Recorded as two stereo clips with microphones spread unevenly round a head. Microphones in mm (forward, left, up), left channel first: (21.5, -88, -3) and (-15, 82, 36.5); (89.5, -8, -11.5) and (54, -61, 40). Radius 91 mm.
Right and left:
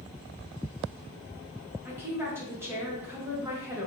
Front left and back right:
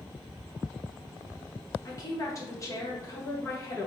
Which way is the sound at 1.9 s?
25° left.